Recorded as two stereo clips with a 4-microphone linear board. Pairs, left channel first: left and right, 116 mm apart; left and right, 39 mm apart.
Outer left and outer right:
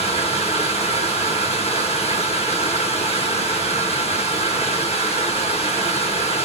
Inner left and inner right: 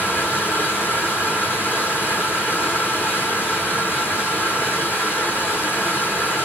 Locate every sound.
0.0 s running water: 65° left (ahead or behind), 1.3 m